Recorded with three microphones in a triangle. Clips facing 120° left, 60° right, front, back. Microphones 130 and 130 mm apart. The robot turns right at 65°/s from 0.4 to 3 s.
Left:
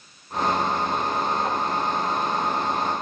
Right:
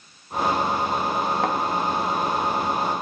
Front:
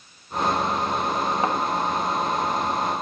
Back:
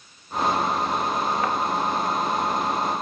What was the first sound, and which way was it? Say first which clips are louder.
A thud: right 2 dB, front 1 dB; 65° right.